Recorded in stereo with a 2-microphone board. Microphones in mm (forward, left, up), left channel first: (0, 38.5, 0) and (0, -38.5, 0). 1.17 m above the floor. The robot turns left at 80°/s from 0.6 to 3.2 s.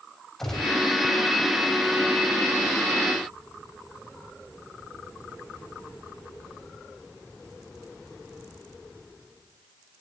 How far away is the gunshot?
About 7 m.